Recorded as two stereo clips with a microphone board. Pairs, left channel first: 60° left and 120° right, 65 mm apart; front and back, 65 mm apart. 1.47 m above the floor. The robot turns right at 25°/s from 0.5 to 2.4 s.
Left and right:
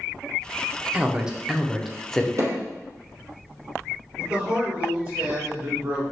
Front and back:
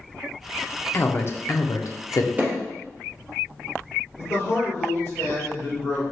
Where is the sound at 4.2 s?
70° right, 1.8 m.